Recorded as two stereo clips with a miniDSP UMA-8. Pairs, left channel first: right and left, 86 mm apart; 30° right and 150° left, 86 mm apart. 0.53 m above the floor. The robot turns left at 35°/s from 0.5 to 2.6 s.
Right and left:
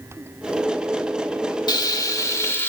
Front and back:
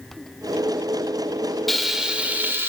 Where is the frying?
120° right, 1.2 m; by 2.7 s 150° right, 1.2 m.